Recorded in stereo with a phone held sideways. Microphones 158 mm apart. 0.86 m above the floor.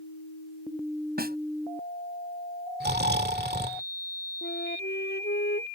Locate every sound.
1.2 s a snare drum: 70° right (ahead or behind)
2.8 s snoring: 80° right
4.4 s a flute: 80° left